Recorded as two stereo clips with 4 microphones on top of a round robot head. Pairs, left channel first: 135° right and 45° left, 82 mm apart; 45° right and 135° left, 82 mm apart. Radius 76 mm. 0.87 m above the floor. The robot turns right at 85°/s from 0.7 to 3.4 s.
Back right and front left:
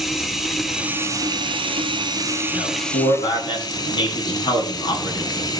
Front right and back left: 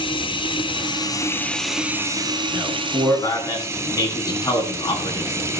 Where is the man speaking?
170° right, 9.5 m; by 5.5 s 95° right, 9.5 m.